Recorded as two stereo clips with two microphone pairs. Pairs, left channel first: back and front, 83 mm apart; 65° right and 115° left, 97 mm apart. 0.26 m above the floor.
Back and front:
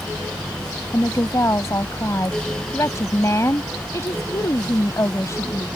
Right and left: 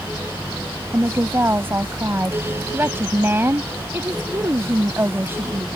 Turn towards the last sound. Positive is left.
turn(degrees=165)